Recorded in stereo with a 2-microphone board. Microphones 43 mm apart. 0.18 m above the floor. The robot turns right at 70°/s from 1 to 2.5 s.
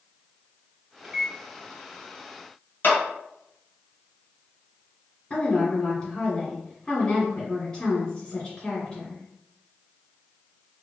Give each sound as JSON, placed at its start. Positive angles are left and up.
{"t": 1.0, "sound": "a microwave", "side_deg": -25, "distance_m": 1.9}
{"t": 2.8, "sound": "a clap", "side_deg": 55, "distance_m": 1.7}
{"t": 5.3, "sound": "a woman speaking", "side_deg": 20, "distance_m": 1.6}